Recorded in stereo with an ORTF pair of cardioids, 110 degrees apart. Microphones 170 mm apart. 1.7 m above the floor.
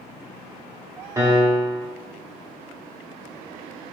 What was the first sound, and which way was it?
A piano, 20° right.